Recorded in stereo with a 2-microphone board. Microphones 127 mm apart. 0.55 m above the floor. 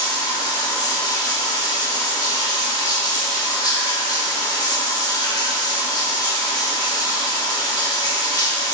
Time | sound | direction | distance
0.0 | running water | 30° left (ahead or behind) | 1.3 m